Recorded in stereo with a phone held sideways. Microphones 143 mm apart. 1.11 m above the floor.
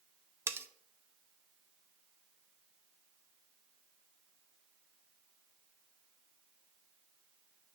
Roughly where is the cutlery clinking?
Centre.